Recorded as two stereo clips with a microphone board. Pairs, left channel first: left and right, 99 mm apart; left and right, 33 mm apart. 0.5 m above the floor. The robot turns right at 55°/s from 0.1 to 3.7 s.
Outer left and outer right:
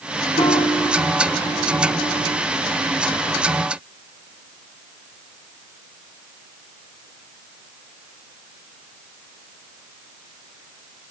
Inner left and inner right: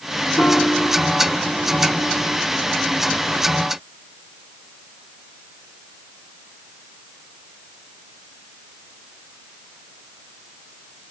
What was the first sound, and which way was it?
A piano, 75° left (ahead or behind).